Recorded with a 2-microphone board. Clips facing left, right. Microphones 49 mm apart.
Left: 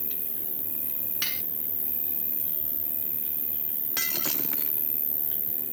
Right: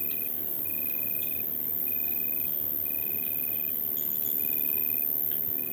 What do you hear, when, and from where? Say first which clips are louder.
0.0 s an insect: right 2 dB; 55° right (ahead or behind)
1.2 s cutlery clinking: left 8 dB; 85° left
4.0 s breaking glass: left 10 dB; 90° left